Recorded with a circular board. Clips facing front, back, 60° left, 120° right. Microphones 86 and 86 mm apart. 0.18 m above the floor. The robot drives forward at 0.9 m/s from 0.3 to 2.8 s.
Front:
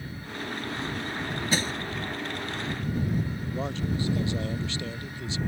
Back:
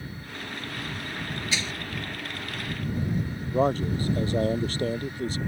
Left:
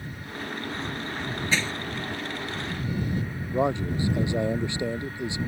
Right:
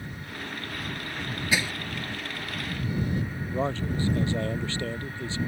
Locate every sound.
1.5 s crushing: 40° right; by 1.7 s 45° right
3.5 s a man speaking: 135° left